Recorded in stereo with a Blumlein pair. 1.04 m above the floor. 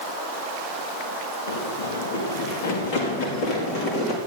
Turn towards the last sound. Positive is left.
turn(degrees=30)